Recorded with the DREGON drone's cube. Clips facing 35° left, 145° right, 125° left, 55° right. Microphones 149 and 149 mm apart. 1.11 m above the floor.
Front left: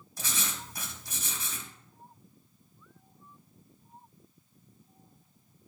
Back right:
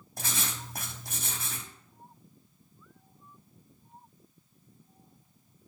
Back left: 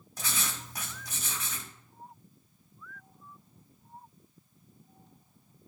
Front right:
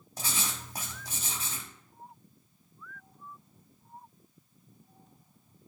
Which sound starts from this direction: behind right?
Writing, at 0.2 s.